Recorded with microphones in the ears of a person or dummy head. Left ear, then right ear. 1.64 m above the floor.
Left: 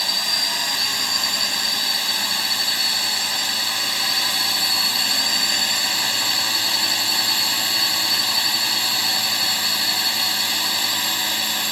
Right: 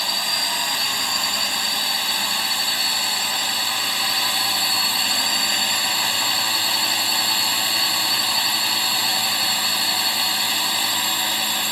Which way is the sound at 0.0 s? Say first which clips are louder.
Left 1 dB; 20° right (ahead or behind).